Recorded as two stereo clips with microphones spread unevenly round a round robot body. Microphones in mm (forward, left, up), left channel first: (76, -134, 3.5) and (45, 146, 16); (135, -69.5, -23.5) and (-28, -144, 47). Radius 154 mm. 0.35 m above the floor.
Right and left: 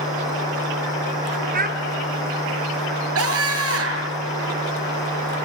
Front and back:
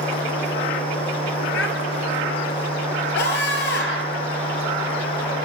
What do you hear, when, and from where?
1.5 s a child speaking: 35° left, 5 m
3.1 s a scream: 60° left, 7 m